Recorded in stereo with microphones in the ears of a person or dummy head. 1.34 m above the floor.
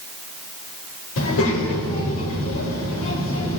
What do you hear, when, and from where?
1.2 s a child speaking: 80° left, 3 m